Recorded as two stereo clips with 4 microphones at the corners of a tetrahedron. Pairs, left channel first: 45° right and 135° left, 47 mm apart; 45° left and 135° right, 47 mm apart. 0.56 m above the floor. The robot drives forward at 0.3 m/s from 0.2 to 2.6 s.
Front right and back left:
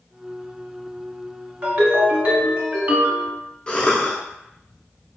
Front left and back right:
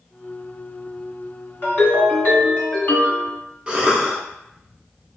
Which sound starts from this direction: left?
A ringtone, at 1.6 s.